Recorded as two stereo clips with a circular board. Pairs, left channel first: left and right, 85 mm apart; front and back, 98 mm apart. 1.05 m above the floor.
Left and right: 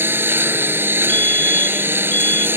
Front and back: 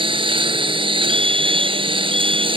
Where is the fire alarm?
160° left.